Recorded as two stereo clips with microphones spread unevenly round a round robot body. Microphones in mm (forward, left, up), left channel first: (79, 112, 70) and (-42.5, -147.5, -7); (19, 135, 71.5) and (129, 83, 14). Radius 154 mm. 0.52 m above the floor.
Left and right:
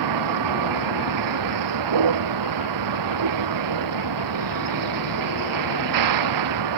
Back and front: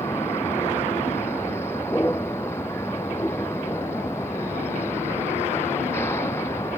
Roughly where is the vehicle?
Behind right.